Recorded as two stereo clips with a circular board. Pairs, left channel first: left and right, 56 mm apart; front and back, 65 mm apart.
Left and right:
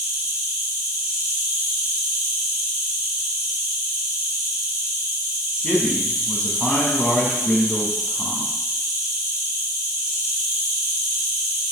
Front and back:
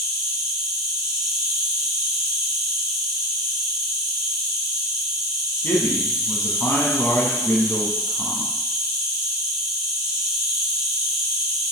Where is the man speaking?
30° left, 1.3 m.